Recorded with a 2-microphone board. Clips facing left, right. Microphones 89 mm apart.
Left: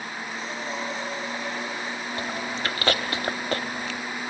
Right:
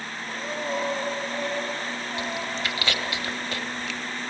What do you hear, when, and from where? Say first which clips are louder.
0.3 s breathing: right 5 dB; 50° right (ahead or behind), 3 m
2.2 s chewing: left 1 dB; 45° left (ahead or behind), 0.8 m